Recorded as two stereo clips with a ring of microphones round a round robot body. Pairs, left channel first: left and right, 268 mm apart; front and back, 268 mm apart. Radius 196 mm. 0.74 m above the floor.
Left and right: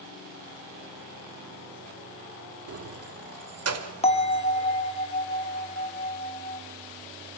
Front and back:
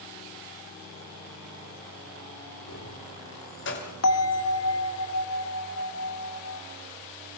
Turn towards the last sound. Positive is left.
turn(degrees=20)